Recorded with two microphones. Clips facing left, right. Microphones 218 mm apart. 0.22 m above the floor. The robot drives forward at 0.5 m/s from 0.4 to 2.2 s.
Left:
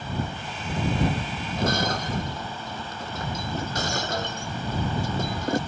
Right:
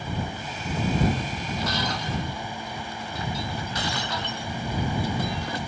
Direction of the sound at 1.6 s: 50° left (ahead or behind).